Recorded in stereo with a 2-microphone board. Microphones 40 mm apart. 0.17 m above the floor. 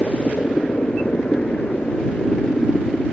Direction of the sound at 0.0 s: 55° left (ahead or behind).